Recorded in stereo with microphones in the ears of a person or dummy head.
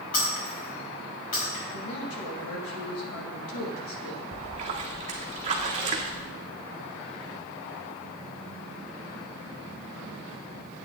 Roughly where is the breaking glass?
Left.